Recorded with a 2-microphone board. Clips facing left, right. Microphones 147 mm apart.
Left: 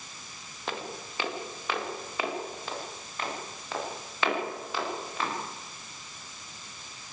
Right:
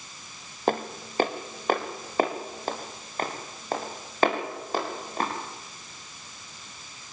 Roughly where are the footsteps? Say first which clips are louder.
Right 10 dB; right.